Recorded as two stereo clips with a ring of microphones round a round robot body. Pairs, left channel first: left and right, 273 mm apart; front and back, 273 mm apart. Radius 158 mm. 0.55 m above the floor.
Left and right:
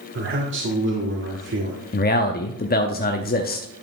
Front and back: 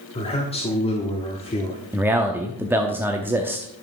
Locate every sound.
0.1 s a man speaking: 65° right, 1.4 m
1.9 s a man speaking: 105° left, 0.8 m